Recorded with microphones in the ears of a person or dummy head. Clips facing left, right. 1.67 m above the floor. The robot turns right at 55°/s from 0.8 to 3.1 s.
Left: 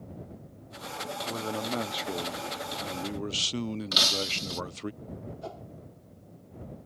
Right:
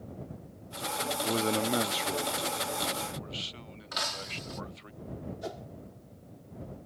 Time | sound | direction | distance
1.2 | a man speaking | 45° right | ?
3.9 | breaking glass | 40° left (ahead or behind) | ?
5.4 | a whoosh | 20° right (ahead or behind) | ?